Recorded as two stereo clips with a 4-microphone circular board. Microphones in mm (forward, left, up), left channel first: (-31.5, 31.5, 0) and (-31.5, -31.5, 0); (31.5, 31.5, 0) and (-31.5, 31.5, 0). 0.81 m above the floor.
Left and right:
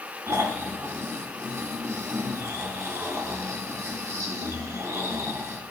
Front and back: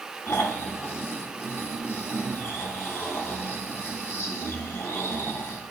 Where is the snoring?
50° right, 1.1 m.